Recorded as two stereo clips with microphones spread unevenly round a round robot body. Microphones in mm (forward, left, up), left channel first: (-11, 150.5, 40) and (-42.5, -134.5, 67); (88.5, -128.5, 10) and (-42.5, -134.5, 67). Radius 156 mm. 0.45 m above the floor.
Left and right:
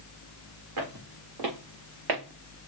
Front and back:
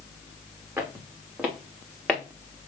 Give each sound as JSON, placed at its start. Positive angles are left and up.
{"t": 0.8, "sound": "footsteps", "azimuth_deg": -105, "distance_m": 3.0}